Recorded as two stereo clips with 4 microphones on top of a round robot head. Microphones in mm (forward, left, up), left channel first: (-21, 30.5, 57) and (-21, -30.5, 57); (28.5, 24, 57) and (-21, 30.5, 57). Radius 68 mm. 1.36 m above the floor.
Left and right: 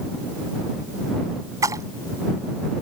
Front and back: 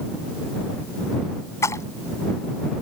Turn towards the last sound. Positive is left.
turn(degrees=-50)